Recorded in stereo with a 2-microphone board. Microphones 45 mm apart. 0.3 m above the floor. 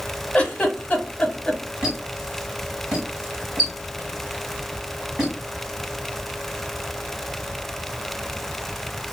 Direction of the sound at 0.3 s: 25° left (ahead or behind).